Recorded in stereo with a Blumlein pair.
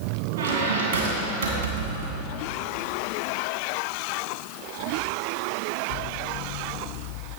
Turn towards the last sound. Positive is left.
turn(degrees=-55)